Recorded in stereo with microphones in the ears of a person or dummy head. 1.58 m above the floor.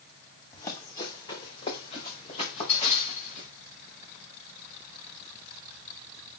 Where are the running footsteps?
20° left (ahead or behind), 3.5 m; by 3.5 s 40° left (ahead or behind), 6.5 m.